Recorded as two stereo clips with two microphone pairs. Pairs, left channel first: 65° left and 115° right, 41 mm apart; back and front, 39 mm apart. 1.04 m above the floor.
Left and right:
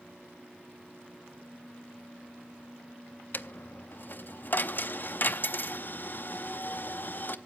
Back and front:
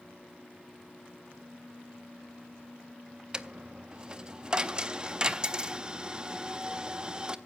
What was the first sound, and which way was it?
A dropped coin, 55° left.